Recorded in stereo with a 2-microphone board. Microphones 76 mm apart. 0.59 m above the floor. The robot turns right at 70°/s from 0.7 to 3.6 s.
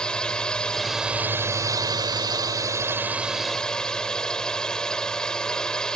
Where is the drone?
165° left; by 6.0 s 10° left.